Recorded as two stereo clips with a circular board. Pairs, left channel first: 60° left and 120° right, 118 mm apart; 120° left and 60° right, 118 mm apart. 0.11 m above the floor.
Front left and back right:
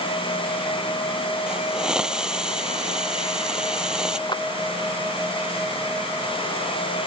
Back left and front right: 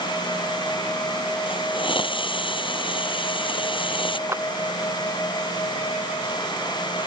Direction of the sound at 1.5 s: 155° left.